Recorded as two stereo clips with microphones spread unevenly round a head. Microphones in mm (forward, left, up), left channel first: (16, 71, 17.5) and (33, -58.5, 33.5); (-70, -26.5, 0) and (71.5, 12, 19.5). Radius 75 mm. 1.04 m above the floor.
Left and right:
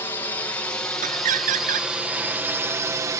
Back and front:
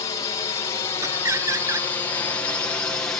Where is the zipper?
I don't hear a zipper.